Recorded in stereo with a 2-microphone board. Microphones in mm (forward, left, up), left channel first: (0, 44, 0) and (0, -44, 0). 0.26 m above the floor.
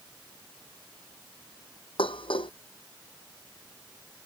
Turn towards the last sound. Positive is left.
turn(degrees=85)